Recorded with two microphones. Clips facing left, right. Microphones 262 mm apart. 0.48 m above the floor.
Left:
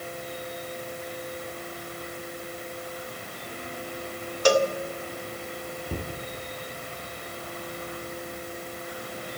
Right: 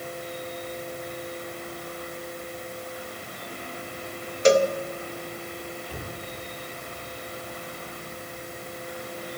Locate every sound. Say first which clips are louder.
4.5 s a cowbell: right 3 dB; 25° right (ahead or behind), 1.5 m
5.9 s a cupboard door: left 4 dB; 55° left (ahead or behind), 6 m